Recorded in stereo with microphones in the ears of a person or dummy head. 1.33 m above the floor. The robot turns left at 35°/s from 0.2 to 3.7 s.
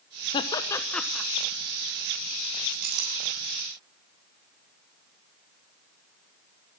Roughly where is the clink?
Right.